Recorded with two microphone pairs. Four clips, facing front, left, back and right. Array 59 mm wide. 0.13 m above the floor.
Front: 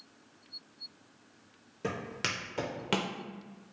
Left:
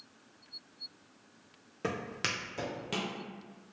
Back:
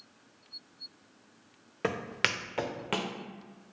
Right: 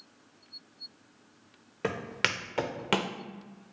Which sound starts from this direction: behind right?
Footsteps, at 1.8 s.